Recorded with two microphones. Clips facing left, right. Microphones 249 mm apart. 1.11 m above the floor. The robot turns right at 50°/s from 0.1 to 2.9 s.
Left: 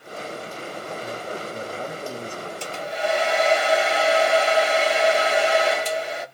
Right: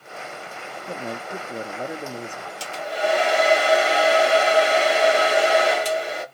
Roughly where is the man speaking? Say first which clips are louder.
Right 3 dB; right.